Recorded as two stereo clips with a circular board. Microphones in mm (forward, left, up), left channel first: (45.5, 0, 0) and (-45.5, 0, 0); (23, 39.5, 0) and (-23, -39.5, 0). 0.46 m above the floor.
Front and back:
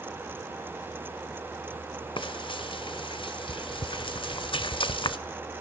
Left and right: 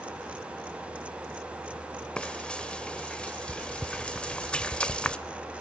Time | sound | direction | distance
2.2 | frying | 20° right | 0.7 m